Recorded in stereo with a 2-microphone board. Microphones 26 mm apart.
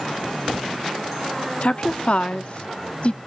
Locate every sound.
1.6 s a woman speaking: 50° left (ahead or behind), 0.7 m